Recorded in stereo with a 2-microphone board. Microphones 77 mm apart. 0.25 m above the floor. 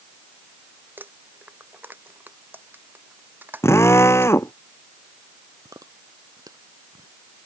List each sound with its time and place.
1.0 s crumpling: 25° right (ahead or behind)
3.6 s a drill: 35° left (ahead or behind)
5.7 s chewing: 50° right (ahead or behind)